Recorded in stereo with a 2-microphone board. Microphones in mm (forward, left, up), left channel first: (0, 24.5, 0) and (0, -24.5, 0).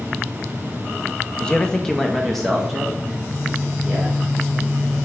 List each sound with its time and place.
1.4 s a man speaking: 15° left (ahead or behind), 0.6 m; by 4.2 s 5° right (ahead or behind), 2.5 m